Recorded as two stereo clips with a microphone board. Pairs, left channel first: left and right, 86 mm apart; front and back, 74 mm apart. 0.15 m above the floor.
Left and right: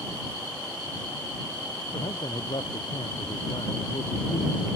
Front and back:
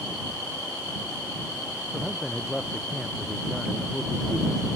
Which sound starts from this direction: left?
A man speaking, at 1.9 s.